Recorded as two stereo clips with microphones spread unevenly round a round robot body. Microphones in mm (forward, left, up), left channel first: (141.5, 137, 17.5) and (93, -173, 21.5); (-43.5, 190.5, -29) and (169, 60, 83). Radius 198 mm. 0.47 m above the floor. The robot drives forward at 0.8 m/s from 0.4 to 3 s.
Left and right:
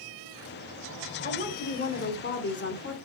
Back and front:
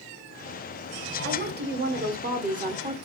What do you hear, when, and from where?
1.2 s a woman speaking: 25° left, 2.5 m; by 3.0 s 50° left, 1.7 m